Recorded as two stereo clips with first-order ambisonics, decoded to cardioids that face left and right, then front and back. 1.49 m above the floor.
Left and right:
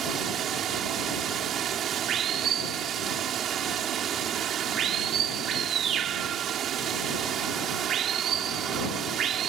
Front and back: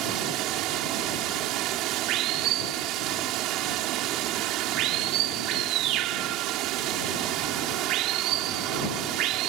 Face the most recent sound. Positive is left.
turn(degrees=-145)